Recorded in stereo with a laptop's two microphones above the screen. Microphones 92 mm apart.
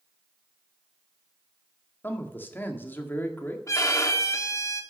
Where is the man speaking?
20° left (ahead or behind), 2.0 m.